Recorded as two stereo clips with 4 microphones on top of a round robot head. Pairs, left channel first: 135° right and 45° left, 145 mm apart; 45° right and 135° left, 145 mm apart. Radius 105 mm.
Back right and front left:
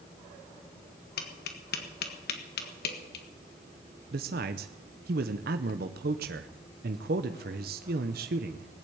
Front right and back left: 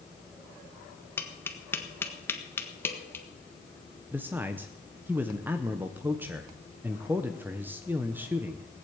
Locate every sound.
1.2 s tapping: 120° right, 1.5 m
4.1 s a man speaking: 60° left, 0.7 m